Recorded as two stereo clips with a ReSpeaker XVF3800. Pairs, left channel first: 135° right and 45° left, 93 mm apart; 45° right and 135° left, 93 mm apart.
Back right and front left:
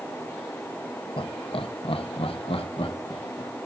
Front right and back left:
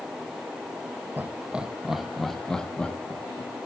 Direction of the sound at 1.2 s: 155° right.